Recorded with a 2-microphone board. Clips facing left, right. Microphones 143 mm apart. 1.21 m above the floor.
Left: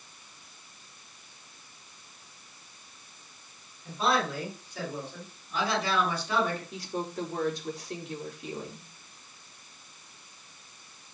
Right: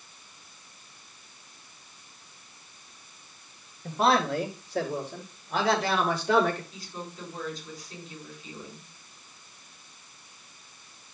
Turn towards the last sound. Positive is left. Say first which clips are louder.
# left 7 dB
turn(degrees=75)  # may be behind; listen again after turning